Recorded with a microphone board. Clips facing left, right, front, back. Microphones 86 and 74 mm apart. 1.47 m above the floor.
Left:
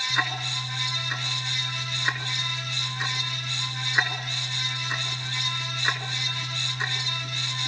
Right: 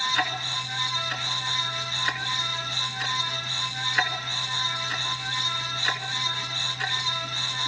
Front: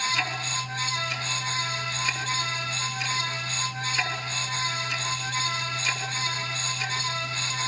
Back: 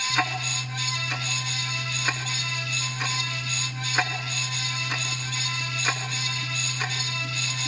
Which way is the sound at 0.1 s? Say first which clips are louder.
Right 1 dB, back 2 dB; 155° left.